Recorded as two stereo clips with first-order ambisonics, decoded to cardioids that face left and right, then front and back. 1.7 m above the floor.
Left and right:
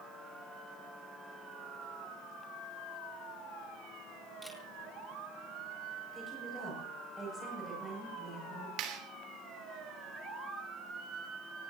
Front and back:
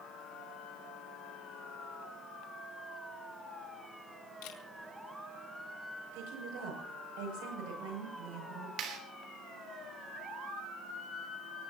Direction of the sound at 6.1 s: 170° right.